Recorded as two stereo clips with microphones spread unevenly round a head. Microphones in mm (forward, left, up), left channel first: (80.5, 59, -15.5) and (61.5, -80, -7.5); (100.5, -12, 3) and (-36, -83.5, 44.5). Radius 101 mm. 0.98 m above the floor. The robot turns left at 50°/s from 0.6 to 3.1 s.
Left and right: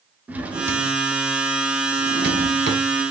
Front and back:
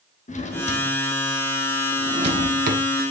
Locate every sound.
0.3 s a drawer: 20° right, 1.4 m; by 2.8 s 130° right, 1.4 m